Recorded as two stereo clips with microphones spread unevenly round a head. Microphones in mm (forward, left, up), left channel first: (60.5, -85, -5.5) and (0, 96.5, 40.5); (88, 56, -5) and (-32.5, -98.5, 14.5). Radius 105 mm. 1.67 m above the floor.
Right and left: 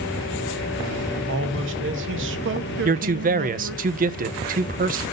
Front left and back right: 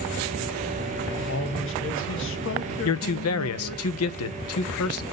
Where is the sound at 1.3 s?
90° left, 1.4 m.